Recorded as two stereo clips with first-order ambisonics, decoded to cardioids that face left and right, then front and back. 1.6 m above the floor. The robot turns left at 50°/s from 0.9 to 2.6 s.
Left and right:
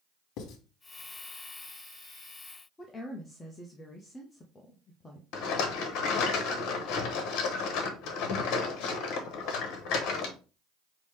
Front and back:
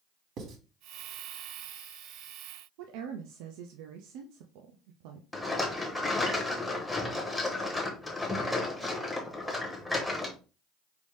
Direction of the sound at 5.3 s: 90° left.